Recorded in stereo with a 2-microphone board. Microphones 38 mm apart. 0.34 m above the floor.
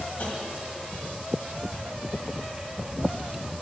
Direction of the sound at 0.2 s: 50° left (ahead or behind).